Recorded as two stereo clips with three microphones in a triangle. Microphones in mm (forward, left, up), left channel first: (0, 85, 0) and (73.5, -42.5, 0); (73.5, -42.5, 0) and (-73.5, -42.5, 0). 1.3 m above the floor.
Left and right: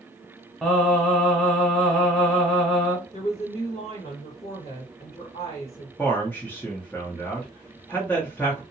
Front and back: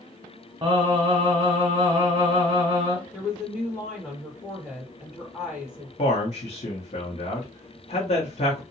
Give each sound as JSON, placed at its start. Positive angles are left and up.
{"t": 0.6, "sound": "singing", "azimuth_deg": -160, "distance_m": 1.1}
{"t": 3.1, "sound": "a woman speaking", "azimuth_deg": 95, "distance_m": 1.2}
{"t": 6.0, "sound": "a man speaking", "azimuth_deg": 40, "distance_m": 0.6}